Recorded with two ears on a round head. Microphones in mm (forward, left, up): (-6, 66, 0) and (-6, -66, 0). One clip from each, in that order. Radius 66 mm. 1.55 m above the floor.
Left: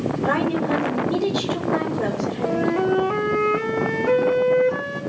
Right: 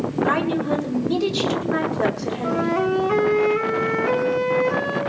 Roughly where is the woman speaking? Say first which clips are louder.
Even; right.